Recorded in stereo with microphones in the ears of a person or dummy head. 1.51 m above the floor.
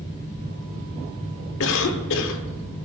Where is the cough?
70° left (ahead or behind), 0.8 m.